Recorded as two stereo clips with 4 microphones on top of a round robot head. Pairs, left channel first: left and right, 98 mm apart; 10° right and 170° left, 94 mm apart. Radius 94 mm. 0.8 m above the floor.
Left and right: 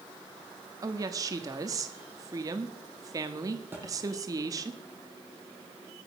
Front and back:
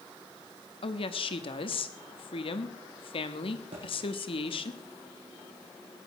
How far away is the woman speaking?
About 1.3 m.